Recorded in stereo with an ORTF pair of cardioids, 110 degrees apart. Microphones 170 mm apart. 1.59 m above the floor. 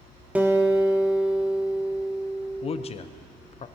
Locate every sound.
0.3 s a guitar: 10° right, 1.5 m
2.6 s a man speaking: 35° left, 0.9 m